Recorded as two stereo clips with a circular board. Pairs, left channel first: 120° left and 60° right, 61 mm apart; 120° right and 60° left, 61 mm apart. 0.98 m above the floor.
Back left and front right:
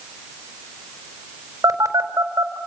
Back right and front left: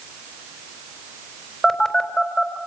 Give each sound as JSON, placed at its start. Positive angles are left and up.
{"t": 1.6, "sound": "a phone buzzing", "azimuth_deg": -35, "distance_m": 4.0}